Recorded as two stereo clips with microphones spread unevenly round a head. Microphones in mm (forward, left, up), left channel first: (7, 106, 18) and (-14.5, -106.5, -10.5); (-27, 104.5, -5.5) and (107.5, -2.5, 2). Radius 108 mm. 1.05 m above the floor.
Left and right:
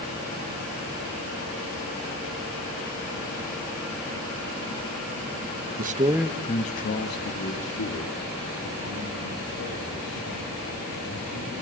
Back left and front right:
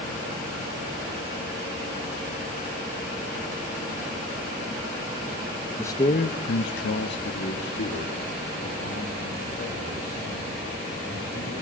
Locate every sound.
5.8 s a man speaking: 135° right, 1.0 m; by 11.5 s 105° left, 8 m